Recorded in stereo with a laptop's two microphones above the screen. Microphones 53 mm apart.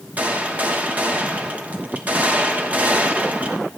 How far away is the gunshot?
About 1.3 m.